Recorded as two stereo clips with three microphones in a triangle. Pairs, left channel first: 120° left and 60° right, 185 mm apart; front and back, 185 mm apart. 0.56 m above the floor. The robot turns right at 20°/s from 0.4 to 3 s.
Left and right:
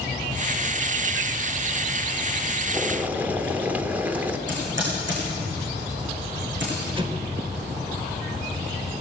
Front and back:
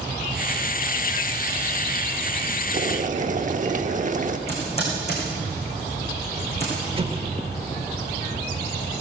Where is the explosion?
120° right, 1.1 m.